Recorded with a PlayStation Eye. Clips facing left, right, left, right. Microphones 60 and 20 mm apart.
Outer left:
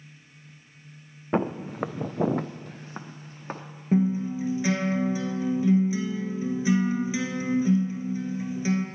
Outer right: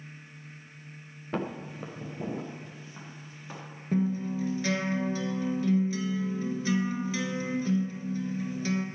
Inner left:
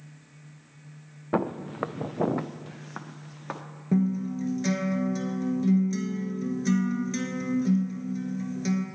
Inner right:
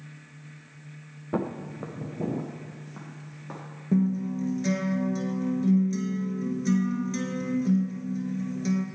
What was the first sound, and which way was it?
Footsteps, 30° left (ahead or behind).